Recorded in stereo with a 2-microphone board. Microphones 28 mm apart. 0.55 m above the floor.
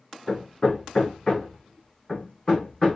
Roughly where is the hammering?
Centre.